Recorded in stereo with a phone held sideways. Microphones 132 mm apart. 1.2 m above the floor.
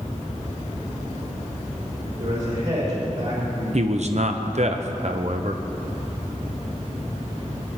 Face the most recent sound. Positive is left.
turn(degrees=-60)  # may be behind; listen again after turning